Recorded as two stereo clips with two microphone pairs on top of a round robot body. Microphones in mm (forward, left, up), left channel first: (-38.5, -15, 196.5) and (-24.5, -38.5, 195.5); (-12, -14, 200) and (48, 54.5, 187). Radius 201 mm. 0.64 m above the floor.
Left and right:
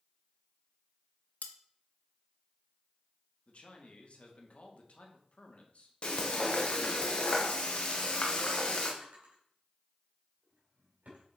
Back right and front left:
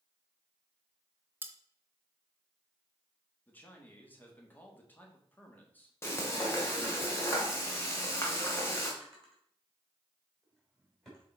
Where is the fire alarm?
I don't hear a fire alarm.